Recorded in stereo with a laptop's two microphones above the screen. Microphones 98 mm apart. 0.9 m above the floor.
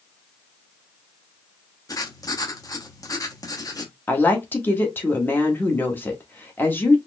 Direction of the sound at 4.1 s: 20° left (ahead or behind).